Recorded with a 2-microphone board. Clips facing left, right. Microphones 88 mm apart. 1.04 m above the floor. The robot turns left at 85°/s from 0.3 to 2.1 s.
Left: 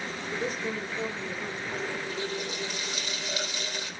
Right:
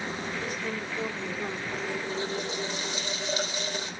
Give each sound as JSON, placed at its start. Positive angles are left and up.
{"t": 0.3, "sound": "a woman speaking", "azimuth_deg": 55, "distance_m": 2.5}
{"t": 1.7, "sound": "a running tap", "azimuth_deg": 5, "distance_m": 3.0}